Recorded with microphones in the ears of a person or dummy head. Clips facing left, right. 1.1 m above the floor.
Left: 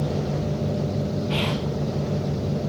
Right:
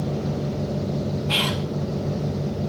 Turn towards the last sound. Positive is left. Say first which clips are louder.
# left 1 dB
turn(degrees=-70)  # may be behind; listen again after turning